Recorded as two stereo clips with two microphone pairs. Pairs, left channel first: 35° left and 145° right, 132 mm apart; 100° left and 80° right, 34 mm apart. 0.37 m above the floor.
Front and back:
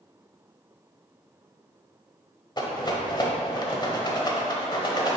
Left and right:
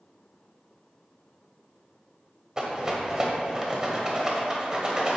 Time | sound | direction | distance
2.6 | a rattle | 15° right | 1.1 m